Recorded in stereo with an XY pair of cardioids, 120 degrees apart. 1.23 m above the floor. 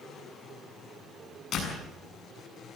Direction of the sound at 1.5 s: 55° left.